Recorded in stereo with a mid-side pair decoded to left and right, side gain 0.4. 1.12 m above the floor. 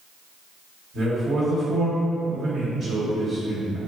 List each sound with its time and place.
0.9 s a man speaking: 65° right, 0.9 m